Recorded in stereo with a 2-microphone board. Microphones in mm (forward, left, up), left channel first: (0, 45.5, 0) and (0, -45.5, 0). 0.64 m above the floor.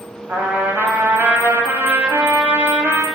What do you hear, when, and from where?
0.3 s a trumpet: 20° right (ahead or behind), 1.3 m